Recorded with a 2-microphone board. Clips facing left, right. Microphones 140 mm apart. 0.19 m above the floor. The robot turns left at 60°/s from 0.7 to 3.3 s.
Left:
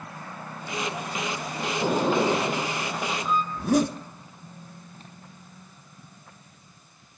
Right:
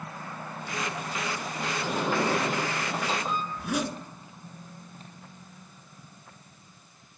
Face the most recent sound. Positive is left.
turn(degrees=40)  # may be behind; listen again after turning